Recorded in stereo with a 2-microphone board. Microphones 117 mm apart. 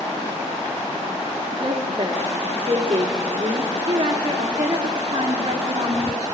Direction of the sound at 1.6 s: 55° right (ahead or behind).